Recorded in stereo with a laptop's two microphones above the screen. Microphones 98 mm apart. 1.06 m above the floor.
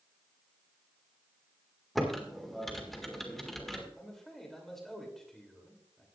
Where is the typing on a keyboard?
5° left (ahead or behind), 1.7 m.